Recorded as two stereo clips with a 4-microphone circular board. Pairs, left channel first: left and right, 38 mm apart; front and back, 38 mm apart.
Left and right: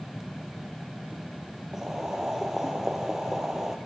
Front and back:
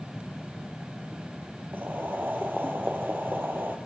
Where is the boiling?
165° right, 2.5 m.